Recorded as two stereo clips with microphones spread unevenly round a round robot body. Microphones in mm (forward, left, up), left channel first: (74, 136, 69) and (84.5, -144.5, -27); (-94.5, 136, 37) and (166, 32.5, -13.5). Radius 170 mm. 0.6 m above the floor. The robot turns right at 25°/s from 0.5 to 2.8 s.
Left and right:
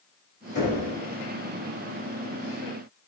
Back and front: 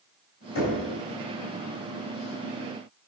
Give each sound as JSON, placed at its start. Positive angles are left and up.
{"t": 0.6, "sound": "knocking", "azimuth_deg": 165, "distance_m": 3.0}